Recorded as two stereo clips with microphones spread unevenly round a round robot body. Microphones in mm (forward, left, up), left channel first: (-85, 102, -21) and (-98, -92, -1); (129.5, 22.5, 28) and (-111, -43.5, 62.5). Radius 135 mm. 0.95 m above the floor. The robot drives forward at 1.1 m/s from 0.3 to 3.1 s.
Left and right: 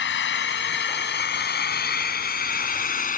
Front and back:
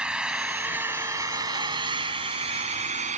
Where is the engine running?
110° left; by 3.2 s 130° left.